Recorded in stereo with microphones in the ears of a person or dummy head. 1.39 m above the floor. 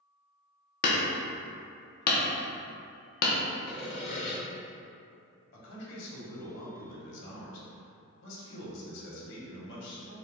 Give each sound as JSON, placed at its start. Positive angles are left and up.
{"t": 0.8, "sound": "hammering", "side_deg": 55, "distance_m": 0.7}
{"t": 3.7, "sound": "sawing", "side_deg": 45, "distance_m": 0.9}
{"t": 5.5, "sound": "a man speaking", "side_deg": 70, "distance_m": 1.3}